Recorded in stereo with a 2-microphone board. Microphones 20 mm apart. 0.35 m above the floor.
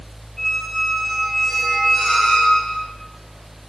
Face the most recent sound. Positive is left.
turn(degrees=35)  # may be behind; listen again after turning